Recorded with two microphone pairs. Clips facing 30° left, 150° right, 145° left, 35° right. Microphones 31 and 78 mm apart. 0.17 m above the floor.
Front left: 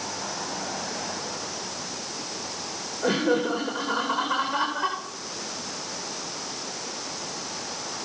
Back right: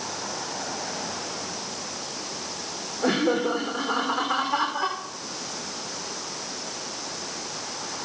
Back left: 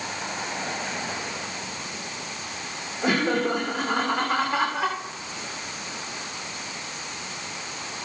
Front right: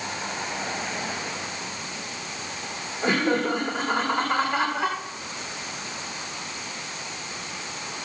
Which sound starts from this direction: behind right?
Laughter, at 3.0 s.